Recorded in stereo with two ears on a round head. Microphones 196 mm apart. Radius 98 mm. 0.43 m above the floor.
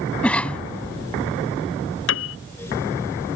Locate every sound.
0.2 s a cough: 5° left (ahead or behind)
2.1 s a piano: 65° left (ahead or behind)